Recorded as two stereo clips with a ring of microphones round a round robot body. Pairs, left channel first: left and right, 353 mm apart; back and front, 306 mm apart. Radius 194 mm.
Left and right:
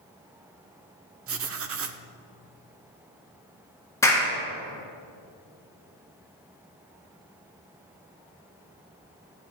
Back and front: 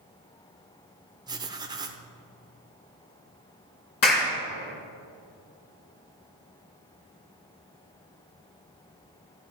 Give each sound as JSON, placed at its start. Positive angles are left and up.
{"t": 1.3, "sound": "writing", "azimuth_deg": -70, "distance_m": 0.9}
{"t": 4.0, "sound": "a clap", "azimuth_deg": 170, "distance_m": 4.0}